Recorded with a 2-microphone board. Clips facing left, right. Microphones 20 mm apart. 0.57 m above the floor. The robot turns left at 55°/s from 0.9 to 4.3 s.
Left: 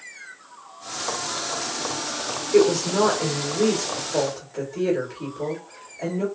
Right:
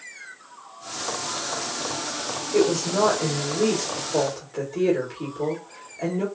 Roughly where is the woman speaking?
Ahead left.